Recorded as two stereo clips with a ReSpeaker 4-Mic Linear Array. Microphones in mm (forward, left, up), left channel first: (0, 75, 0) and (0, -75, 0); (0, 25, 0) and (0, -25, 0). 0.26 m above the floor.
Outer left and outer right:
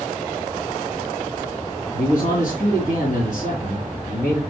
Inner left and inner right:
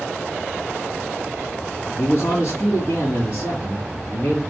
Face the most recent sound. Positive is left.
turn(degrees=60)  # may be behind; listen again after turning